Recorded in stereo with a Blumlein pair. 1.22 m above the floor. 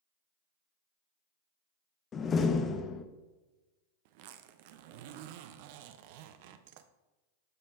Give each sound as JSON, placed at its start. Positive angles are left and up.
{"t": 2.1, "sound": "a door slam", "azimuth_deg": 25, "distance_m": 0.7}
{"t": 4.0, "sound": "a zipper", "azimuth_deg": -50, "distance_m": 0.5}